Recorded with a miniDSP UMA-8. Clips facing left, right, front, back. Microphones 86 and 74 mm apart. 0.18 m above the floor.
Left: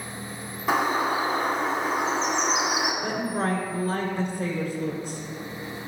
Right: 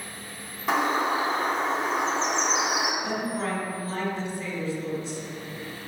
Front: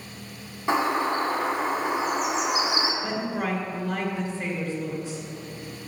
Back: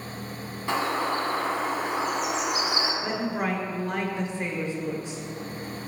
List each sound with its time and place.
0.7 s a bird: 10° left, 1.7 m
3.0 s a woman speaking: 110° left, 2.5 m